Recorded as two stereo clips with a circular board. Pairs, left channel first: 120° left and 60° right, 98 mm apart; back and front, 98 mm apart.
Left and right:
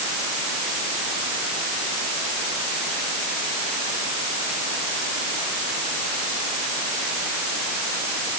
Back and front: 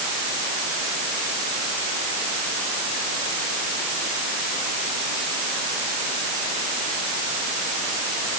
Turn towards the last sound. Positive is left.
No sound to turn to.